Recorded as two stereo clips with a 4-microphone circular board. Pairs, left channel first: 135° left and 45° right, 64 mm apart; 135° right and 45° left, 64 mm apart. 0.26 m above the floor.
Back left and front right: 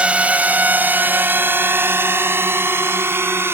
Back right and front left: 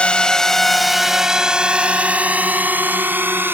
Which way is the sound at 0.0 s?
85° right.